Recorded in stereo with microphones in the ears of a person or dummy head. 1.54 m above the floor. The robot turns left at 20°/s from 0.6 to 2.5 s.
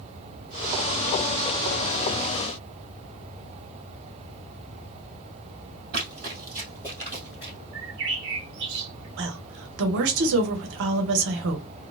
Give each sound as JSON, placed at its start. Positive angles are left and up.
{"t": 5.9, "sound": "running footsteps", "side_deg": -20, "distance_m": 1.5}
{"t": 7.7, "sound": "a bird", "side_deg": -45, "distance_m": 0.7}
{"t": 9.2, "sound": "a woman speaking", "side_deg": -55, "distance_m": 0.9}